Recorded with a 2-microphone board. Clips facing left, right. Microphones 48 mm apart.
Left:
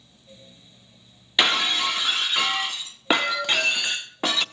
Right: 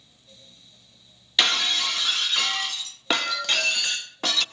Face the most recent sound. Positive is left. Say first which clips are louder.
# left 2 dB
turn(degrees=15)  # may be behind; listen again after turning